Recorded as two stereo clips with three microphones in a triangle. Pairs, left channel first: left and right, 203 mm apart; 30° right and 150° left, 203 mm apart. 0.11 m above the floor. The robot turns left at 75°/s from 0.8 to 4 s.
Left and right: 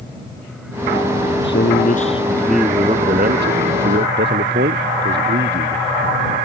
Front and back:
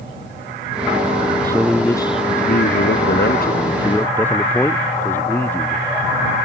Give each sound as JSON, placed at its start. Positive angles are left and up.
{"t": 1.4, "sound": "a man speaking", "azimuth_deg": 85}